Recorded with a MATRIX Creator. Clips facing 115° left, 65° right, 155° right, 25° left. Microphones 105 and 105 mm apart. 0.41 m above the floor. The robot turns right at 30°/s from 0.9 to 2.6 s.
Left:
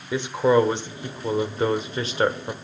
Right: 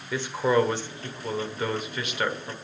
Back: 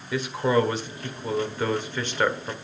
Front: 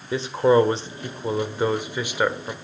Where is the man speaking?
55° left, 1.3 m; by 2.5 s 105° left, 1.3 m.